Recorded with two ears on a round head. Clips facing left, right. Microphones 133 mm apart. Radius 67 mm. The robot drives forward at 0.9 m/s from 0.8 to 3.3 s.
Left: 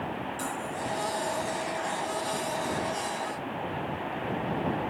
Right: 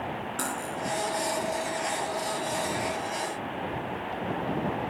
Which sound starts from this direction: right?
Cutlery clinking, at 0.4 s.